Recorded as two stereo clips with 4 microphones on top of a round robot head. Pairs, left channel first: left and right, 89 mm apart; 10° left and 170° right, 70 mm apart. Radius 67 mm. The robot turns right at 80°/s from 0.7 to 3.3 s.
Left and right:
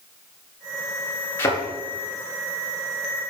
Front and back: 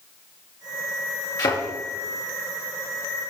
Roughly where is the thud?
Ahead left.